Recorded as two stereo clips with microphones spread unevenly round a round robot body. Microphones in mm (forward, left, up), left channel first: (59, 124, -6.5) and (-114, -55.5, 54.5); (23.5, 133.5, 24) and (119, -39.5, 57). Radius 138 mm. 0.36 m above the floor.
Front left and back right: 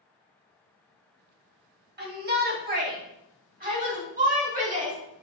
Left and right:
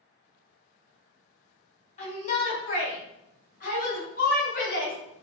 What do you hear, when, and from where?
2.0 s a shout: 170° left, 3 m; by 5.0 s 165° left, 4.5 m